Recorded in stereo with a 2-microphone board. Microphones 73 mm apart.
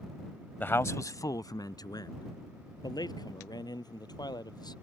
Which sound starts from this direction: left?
A man speaking, at 0.6 s.